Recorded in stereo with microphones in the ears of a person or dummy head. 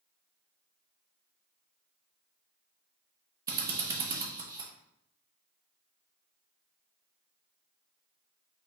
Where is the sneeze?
I don't hear a sneeze.